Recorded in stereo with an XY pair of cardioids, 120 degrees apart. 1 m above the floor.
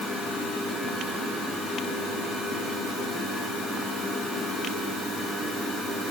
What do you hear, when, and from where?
Only background noise.